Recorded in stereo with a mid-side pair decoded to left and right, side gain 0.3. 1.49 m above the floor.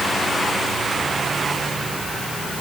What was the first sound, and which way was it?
Only background noise.